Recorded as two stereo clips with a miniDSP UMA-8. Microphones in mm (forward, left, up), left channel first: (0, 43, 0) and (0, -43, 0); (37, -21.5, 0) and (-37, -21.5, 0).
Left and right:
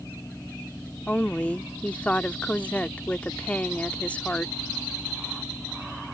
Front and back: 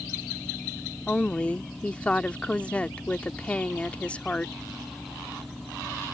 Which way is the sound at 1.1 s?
45° left.